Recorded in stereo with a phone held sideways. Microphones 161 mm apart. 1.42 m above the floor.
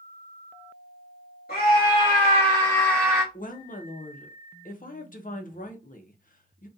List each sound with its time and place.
1.5 s a scream: 65° left (ahead or behind), 1.0 m; by 3.2 s 5° right (ahead or behind), 0.7 m
3.3 s a woman speaking: 60° left (ahead or behind), 0.6 m